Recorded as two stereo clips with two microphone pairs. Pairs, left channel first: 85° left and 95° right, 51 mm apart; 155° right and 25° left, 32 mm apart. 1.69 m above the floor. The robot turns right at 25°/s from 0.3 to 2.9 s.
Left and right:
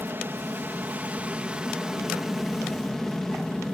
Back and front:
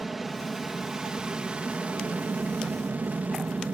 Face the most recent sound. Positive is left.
turn(degrees=5)